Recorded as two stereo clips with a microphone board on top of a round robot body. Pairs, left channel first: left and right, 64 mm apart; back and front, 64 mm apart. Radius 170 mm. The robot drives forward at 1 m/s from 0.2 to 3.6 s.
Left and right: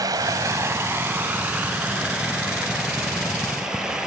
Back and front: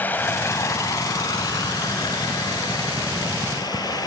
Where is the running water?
115° right, 0.9 m; by 4.1 s 170° right, 4 m.